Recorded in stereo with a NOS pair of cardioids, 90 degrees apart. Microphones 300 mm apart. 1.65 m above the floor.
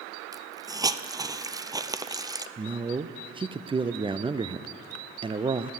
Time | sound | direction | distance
0.3 | a hiss | 10° right | 0.5 m
2.6 | a man speaking | 15° right | 0.5 m